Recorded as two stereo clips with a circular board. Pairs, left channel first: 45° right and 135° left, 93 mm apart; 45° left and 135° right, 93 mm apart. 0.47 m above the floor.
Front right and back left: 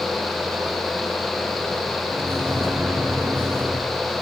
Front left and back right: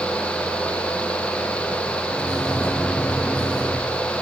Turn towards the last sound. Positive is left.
turn(degrees=120)